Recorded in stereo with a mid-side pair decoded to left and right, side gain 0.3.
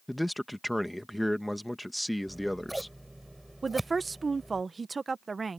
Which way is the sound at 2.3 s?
15° right.